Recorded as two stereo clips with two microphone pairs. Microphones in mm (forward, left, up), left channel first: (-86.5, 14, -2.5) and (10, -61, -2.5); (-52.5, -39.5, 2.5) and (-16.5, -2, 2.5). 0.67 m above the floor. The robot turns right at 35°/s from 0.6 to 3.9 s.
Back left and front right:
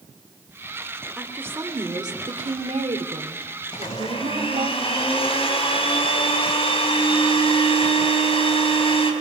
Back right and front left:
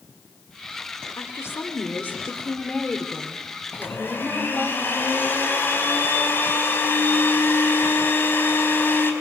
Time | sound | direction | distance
1.2 | a woman speaking | 120° right | 2.5 m
3.7 | a blender | 175° left | 4.5 m